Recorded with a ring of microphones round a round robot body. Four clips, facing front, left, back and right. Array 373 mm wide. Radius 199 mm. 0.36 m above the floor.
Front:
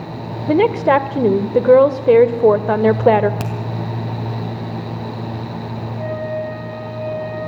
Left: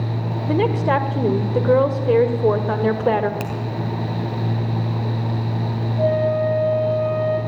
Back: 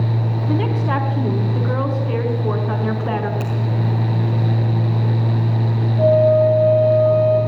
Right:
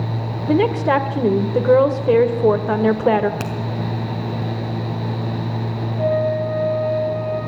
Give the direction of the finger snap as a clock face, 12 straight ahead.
1 o'clock.